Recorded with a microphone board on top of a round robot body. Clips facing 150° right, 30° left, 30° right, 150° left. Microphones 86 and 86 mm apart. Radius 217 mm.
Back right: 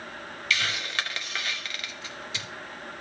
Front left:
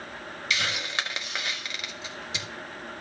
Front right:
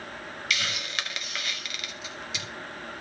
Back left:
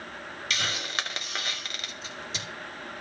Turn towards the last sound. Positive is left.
turn(degrees=100)